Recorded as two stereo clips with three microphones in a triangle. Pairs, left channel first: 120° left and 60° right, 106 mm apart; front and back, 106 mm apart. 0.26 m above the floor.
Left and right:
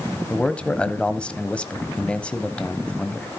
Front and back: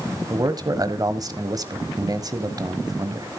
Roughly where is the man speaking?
Behind.